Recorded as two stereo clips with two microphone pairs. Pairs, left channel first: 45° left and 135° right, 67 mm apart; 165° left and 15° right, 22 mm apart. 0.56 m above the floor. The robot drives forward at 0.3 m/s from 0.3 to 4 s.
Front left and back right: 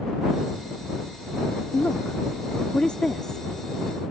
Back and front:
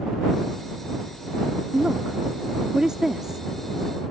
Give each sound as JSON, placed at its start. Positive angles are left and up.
{"t": 1.7, "sound": "a woman speaking", "azimuth_deg": -10}